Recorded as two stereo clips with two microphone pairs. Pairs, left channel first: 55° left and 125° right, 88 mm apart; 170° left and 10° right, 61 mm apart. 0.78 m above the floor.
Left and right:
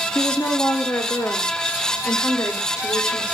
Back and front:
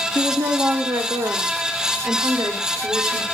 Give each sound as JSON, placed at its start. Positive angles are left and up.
{"t": 0.1, "sound": "a woman speaking", "azimuth_deg": -10, "distance_m": 1.6}